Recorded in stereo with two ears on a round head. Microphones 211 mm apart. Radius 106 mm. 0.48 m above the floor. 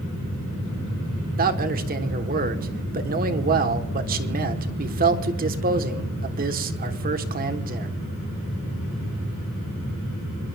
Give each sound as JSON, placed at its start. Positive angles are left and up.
{"t": 1.4, "sound": "a man speaking", "side_deg": -40, "distance_m": 1.2}